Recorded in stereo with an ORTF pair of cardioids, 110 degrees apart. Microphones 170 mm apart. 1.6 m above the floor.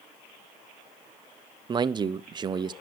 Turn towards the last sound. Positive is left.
turn(degrees=-25)